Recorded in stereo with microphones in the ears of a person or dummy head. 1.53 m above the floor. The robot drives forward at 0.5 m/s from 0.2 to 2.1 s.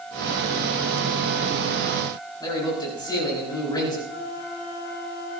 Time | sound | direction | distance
2.4 | a man speaking | 20° left (ahead or behind) | 4.5 m
4.1 | a flute | 50° left (ahead or behind) | 4 m